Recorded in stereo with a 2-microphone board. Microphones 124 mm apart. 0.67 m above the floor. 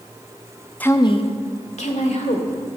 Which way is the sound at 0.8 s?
10° left (ahead or behind).